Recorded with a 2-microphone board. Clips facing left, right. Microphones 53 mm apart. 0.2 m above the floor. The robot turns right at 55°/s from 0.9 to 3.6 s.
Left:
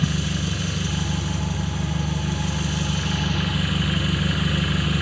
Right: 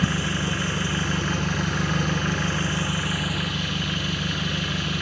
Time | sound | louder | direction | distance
0.0 | an engine running | right 1 dB | 140° right | 1.1 m